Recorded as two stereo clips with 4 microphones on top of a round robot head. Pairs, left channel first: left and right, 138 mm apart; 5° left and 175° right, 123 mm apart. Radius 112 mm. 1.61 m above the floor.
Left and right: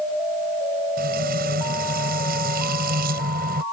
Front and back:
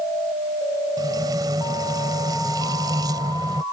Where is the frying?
110° right.